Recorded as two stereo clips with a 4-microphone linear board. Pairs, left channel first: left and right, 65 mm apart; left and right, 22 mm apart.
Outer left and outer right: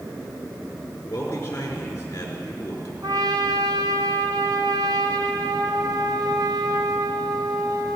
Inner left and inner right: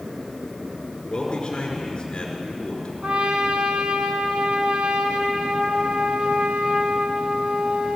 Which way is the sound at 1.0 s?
35° left (ahead or behind).